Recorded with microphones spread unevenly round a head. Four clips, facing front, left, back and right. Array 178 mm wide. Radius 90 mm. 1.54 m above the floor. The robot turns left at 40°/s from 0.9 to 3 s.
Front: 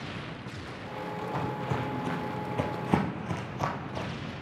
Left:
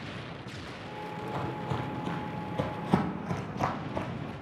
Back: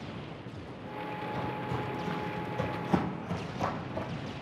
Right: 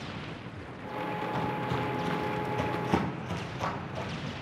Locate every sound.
1.2 s footsteps: 50° left, 2 m; by 4.3 s 100° left, 1.9 m